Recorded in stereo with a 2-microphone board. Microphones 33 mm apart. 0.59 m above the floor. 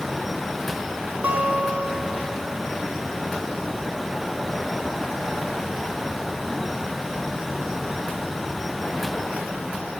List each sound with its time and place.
1.2 s a guitar: 65° right (ahead or behind), 0.8 m